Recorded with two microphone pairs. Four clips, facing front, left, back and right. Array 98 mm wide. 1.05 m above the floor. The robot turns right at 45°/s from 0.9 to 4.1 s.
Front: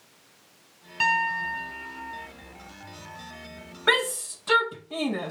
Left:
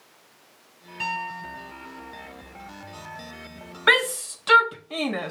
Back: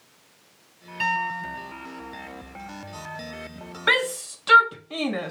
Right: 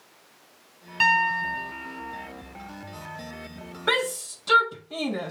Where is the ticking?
No ticking in this recording.